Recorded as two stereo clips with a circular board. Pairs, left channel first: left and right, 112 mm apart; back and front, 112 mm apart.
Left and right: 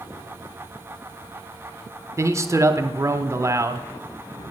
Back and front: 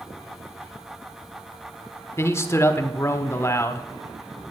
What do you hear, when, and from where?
2.2 s a man speaking: 130° right, 1.2 m